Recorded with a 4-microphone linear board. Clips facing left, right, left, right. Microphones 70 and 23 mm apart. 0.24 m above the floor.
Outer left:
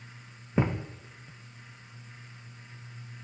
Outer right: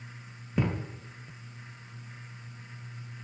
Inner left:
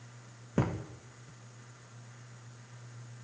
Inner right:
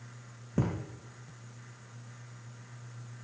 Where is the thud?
30° left (ahead or behind), 2.5 m.